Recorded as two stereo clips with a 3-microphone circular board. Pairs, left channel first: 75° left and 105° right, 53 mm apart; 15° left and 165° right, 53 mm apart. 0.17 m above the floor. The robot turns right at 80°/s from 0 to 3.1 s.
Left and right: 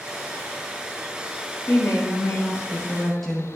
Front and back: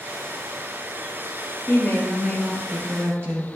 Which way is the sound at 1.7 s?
50° left.